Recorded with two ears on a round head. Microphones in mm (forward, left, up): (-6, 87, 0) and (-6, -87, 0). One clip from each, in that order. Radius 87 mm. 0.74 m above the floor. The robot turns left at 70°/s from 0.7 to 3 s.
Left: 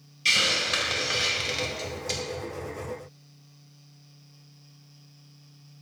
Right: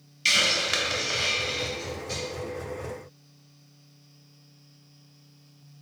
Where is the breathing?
I don't hear breathing.